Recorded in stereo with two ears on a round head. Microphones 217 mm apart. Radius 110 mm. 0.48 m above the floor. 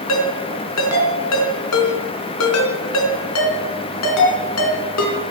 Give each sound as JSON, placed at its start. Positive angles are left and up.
{"t": 0.1, "sound": "a ringtone", "side_deg": 70, "distance_m": 3.5}